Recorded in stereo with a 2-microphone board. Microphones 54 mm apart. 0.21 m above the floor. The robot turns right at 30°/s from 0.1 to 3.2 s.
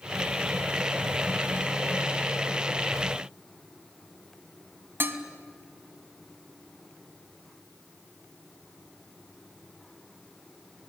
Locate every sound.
5.0 s dishes clattering: 45° right (ahead or behind), 1.2 m